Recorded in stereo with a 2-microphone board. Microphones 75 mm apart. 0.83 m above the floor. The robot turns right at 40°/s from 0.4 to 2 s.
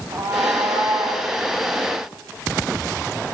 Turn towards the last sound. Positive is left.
turn(degrees=-65)